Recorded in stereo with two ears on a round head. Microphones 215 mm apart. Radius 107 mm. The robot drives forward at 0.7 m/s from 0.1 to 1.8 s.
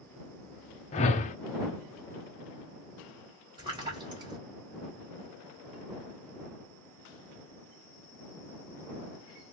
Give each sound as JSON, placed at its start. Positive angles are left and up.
{"t": 0.9, "sound": "a whoosh", "side_deg": 25, "distance_m": 0.5}
{"t": 3.6, "sound": "a splash", "side_deg": -20, "distance_m": 1.8}